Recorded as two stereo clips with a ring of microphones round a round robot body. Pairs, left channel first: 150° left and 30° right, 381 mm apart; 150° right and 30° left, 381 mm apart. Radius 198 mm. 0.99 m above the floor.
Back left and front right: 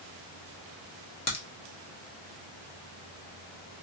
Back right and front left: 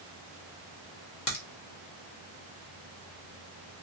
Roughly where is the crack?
Behind.